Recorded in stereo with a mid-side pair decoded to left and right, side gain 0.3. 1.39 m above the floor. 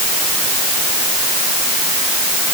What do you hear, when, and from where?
Only background noise.